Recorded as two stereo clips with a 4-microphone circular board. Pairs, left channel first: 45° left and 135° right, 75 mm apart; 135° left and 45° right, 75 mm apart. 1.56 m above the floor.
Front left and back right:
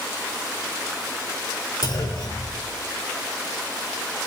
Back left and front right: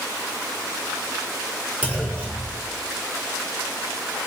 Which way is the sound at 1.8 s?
25° left.